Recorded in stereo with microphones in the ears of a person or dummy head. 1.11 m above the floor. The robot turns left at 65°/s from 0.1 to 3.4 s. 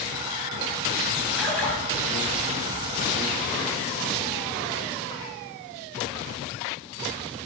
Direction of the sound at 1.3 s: 175° right.